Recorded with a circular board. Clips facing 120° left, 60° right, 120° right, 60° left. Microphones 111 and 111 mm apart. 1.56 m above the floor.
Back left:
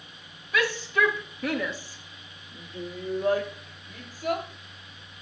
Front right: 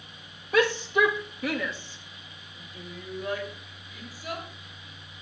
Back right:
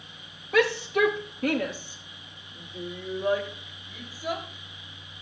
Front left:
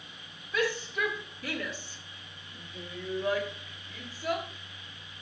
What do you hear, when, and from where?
0.5 s a shout: 100° right, 1.4 m; by 4.5 s 150° left, 4.5 m